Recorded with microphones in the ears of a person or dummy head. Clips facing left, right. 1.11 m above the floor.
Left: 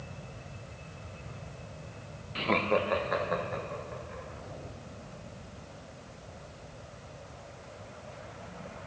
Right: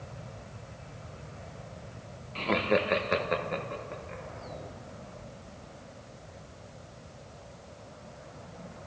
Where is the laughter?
15° left (ahead or behind), 0.5 m; by 4.2 s 50° right (ahead or behind), 2.5 m.